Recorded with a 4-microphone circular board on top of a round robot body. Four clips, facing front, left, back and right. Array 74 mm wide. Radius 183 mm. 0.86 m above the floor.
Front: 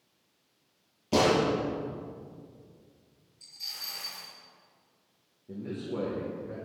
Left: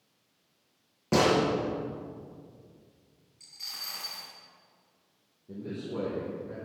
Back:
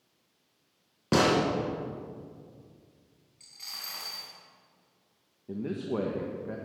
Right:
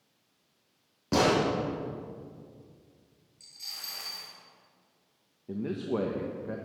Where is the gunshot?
170° left, 3.5 m.